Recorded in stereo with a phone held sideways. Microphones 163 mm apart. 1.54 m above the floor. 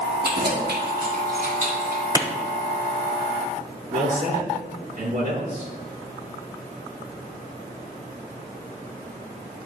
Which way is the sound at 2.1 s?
20° right (ahead or behind).